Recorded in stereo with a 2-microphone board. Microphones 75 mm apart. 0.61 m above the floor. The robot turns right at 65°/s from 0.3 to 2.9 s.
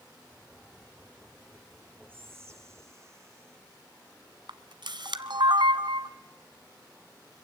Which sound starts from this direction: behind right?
Whispering, at 2.1 s.